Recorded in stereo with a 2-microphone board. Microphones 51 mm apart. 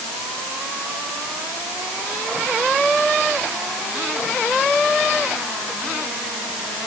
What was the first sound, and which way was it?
Only background noise.